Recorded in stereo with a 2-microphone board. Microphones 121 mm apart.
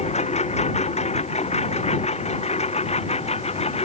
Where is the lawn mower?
65° left (ahead or behind); by 3.9 s 60° left (ahead or behind).